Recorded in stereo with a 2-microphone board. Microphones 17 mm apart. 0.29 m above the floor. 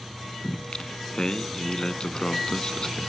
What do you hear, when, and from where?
0.4 s singing: 50° left (ahead or behind), 0.5 m